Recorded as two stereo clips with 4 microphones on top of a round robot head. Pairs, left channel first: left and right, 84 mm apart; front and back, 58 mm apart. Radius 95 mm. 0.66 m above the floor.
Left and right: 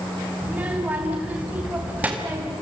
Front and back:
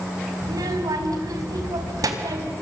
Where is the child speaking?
165° right, 3.5 m.